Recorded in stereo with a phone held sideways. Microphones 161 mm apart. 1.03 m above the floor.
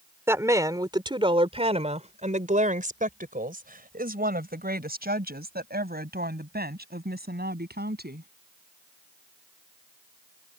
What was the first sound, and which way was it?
A woman speaking, 15° right (ahead or behind).